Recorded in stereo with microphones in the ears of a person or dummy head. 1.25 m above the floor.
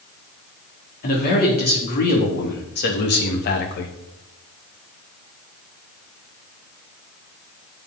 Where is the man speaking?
50° left (ahead or behind), 3 m; by 3.9 s 60° left (ahead or behind), 1.5 m.